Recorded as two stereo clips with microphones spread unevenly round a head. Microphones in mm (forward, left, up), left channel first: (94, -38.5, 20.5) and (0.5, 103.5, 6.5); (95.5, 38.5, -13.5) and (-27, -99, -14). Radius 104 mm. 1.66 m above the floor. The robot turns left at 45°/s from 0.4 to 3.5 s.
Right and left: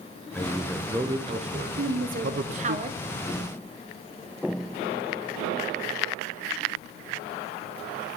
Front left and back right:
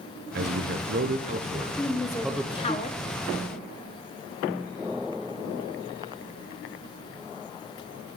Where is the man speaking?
135° right, 0.5 m; by 2.8 s 120° left, 0.5 m.